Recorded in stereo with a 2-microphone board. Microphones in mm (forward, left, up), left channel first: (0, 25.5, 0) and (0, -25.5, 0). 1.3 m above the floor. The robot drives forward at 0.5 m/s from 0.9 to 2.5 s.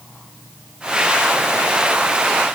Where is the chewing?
No chewing in this recording.